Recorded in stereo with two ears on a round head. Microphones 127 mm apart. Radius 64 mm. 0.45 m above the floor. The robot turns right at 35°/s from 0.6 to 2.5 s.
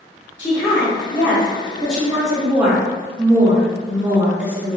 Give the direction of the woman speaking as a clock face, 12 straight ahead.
8 o'clock.